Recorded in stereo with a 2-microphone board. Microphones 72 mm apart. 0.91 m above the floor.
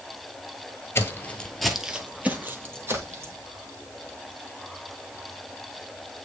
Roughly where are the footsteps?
Left.